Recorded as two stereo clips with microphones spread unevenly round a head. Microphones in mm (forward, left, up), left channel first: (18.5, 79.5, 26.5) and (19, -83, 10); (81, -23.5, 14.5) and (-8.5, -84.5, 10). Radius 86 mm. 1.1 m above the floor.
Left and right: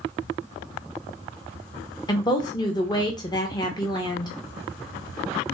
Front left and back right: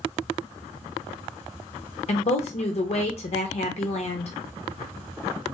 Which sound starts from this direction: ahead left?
A woman speaking, at 2.1 s.